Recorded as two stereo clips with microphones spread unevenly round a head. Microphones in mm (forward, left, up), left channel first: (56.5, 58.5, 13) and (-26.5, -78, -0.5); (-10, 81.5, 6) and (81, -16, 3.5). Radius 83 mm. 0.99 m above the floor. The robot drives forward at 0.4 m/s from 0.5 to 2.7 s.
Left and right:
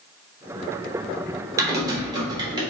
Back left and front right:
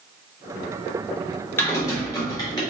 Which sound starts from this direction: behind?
Typing on a keyboard, at 1.6 s.